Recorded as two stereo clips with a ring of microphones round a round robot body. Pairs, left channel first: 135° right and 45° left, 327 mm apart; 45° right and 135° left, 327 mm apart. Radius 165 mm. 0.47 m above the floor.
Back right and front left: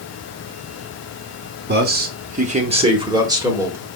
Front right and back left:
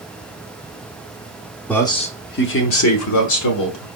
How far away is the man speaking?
About 0.7 m.